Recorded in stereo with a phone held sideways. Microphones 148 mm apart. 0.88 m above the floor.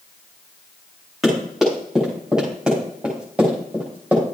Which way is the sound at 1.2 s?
Centre (ahead or behind).